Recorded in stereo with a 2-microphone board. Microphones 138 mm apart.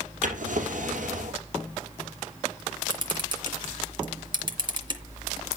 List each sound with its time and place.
0.2 s a drawer: 65° right (ahead or behind), 3 m
2.9 s a camera shutter: 35° right (ahead or behind), 2.5 m